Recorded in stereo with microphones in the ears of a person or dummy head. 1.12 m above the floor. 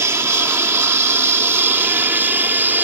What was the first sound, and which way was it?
An aircraft, 15° right (ahead or behind).